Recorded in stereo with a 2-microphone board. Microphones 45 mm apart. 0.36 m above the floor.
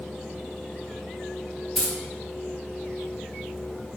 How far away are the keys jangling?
About 0.8 m.